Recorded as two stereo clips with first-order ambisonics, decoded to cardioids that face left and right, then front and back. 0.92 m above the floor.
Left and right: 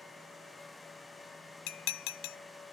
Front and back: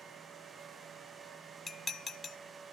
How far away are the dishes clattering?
About 0.5 m.